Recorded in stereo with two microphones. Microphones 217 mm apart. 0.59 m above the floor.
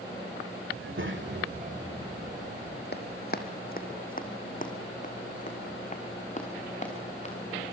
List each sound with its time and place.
0.7 s a child speaking: 75° right (ahead or behind), 1.8 m; by 2.8 s 10° right (ahead or behind), 3 m
2.9 s running footsteps: 50° left (ahead or behind), 1.6 m; by 7.3 s 30° left (ahead or behind), 4 m